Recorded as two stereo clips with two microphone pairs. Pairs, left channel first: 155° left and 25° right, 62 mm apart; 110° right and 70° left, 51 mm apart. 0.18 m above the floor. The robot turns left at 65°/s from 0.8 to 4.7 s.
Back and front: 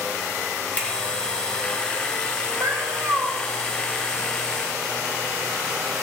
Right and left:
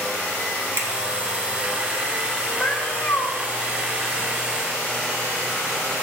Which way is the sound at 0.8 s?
95° left.